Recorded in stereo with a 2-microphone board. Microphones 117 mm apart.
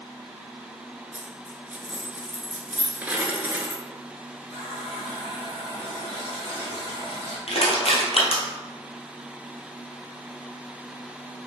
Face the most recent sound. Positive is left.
turn(degrees=60)  # may be behind; listen again after turning